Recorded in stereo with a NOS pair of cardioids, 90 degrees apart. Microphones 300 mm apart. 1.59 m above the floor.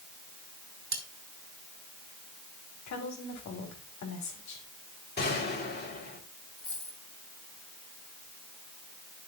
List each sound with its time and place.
0.9 s cutlery clinking: 45° right, 3.5 m
2.9 s a woman speaking: 65° left, 3.5 m
5.2 s a gunshot: 35° left, 3.5 m
6.6 s a dropped coin: 35° left, 3.5 m